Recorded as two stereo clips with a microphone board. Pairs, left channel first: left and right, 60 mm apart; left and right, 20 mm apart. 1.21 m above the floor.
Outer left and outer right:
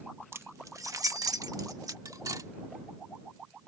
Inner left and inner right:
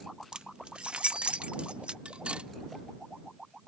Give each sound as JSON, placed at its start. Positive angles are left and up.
{"t": 0.3, "sound": "keys jangling", "side_deg": -45}
{"t": 2.0, "sound": "cutlery clinking", "side_deg": -70}